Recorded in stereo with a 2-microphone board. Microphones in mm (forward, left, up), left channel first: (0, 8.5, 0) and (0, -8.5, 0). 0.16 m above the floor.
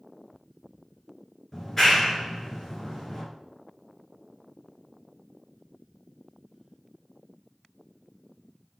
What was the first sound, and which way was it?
A clap, 20° left (ahead or behind).